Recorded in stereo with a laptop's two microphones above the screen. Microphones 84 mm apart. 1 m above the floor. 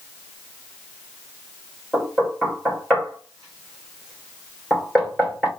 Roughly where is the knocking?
Centre.